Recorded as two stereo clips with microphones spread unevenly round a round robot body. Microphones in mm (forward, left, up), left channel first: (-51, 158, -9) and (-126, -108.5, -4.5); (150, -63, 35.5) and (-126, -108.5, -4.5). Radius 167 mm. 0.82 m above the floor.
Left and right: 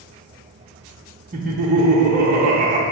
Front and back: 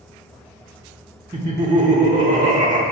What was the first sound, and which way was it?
Laughter, 130° right.